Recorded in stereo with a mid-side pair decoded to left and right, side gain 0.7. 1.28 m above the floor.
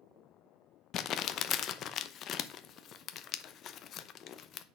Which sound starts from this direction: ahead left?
Crumpling, at 0.9 s.